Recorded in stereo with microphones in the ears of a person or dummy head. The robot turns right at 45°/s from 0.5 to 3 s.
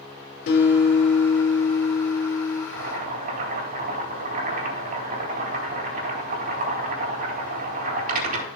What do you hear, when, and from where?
0.5 s a guitar: 50° left, 3.5 m; by 2.6 s 145° left, 3.5 m
2.7 s boiling: 55° right (ahead or behind), 3.5 m; by 8.5 s 45° right (ahead or behind), 3.5 m